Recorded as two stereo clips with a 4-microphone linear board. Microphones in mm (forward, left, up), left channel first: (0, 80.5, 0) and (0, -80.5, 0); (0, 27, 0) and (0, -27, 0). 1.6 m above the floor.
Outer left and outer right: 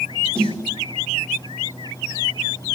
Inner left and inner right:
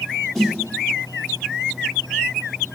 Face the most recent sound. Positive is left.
turn(degrees=5)  # may be behind; listen again after turning